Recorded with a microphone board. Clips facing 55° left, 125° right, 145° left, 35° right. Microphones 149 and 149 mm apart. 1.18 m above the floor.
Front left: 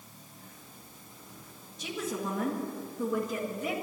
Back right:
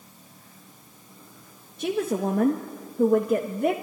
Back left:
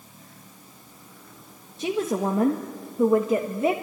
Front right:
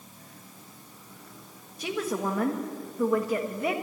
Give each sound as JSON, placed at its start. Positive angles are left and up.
{"t": 1.8, "sound": "a woman speaking", "azimuth_deg": -150, "distance_m": 1.6}